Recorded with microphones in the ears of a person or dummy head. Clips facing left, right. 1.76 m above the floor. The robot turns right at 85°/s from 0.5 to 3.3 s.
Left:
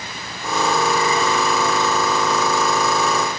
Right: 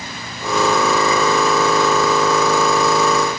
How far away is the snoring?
I don't hear snoring.